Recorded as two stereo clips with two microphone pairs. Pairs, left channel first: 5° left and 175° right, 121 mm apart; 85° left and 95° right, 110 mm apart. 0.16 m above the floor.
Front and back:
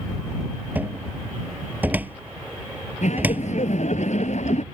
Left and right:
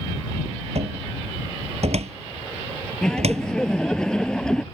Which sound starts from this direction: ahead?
Laughter, at 3.0 s.